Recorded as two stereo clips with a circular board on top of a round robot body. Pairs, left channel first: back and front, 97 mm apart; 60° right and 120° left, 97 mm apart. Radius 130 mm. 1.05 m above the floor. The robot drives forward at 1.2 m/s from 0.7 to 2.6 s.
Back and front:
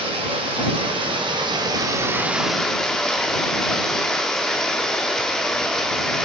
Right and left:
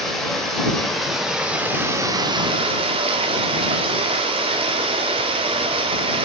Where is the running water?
25° left, 2.5 m; by 6.2 s 95° left, 1.1 m.